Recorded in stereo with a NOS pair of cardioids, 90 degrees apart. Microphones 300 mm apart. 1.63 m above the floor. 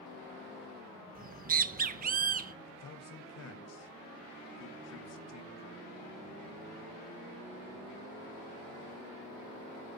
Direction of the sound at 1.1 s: 30° right.